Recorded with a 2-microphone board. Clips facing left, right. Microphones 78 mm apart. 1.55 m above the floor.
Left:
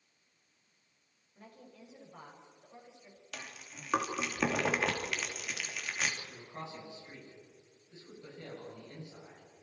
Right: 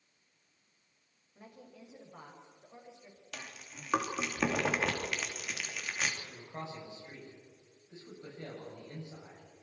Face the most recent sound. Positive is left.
turn(degrees=-30)  # may be behind; listen again after turning